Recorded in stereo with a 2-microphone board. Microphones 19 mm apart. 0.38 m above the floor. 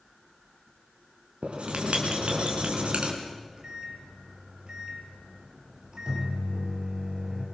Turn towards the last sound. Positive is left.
turn(degrees=-45)  # may be behind; listen again after turning